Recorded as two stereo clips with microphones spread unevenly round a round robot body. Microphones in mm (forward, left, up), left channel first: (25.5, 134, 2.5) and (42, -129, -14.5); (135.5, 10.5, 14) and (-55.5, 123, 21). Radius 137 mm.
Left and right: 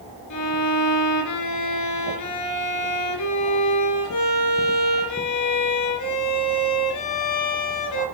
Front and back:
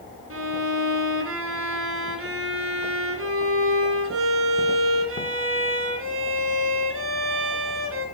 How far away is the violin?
About 3 m.